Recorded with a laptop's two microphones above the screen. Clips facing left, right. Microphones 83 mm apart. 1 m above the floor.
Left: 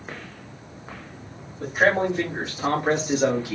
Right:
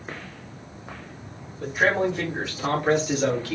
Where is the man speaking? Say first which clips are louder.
Left 2 dB; 45° left (ahead or behind), 1.8 m; by 3.6 s 15° left (ahead or behind), 0.9 m.